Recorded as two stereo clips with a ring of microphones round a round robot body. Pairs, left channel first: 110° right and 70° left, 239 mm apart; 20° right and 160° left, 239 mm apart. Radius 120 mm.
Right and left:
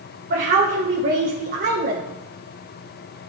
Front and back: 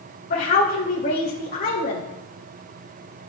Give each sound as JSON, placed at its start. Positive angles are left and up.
{"t": 0.3, "sound": "a woman speaking", "azimuth_deg": 25, "distance_m": 2.0}